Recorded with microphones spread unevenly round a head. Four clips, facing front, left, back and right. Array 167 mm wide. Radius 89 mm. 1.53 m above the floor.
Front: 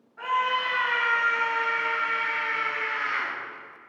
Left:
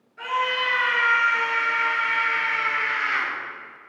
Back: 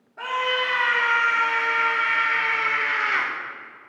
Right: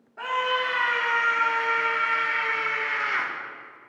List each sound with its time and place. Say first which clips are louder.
0.2 s a scream: left 1 dB, even; 130° right, 3.5 m; by 3.3 s 165° right, 4 m